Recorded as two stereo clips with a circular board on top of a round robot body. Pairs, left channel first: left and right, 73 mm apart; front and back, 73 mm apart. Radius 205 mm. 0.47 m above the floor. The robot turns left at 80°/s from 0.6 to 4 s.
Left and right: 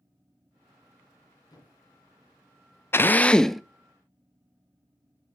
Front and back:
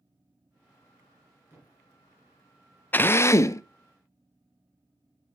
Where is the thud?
125° left, 3.5 m; by 1.8 s 100° left, 3.5 m.